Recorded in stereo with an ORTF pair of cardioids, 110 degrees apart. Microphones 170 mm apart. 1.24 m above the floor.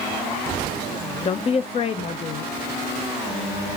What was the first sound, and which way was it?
A woman speaking, 40° left.